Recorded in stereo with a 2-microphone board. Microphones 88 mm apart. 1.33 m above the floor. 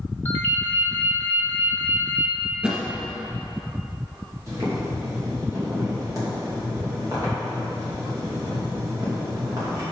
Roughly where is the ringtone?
Left.